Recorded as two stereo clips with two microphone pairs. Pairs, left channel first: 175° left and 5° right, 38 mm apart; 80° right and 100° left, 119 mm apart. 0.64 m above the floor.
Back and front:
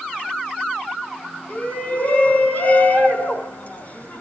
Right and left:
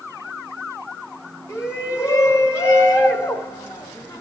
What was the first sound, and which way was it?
A shout, 145° right.